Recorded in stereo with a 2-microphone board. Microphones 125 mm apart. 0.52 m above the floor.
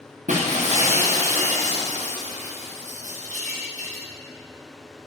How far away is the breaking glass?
About 5.5 m.